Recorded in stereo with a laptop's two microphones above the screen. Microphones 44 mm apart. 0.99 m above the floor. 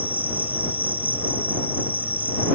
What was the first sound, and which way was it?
An insect, 45° right (ahead or behind).